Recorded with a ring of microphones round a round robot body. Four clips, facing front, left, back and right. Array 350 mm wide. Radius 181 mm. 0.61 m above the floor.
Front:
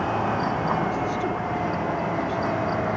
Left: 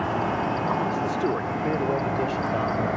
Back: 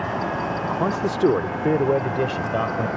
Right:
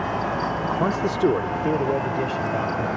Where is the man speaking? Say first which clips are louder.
Right 4 dB, back 5 dB; 135° right; by 2.9 s 175° left.